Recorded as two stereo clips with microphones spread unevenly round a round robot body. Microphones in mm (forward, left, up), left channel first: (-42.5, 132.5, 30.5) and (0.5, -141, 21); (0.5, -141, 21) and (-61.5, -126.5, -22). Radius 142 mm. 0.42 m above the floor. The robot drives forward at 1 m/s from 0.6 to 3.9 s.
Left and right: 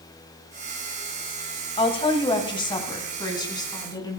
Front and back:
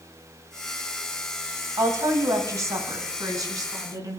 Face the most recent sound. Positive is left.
turn(degrees=175)